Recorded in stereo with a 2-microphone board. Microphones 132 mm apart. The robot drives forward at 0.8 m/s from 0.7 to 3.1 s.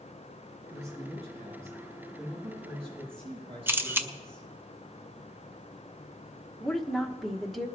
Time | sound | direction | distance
0.7 | a man speaking | 60° right (ahead or behind) | 7.5 m
3.7 | a camera shutter | 15° right (ahead or behind) | 0.7 m
6.6 | a woman speaking | centre (ahead or behind) | 1.2 m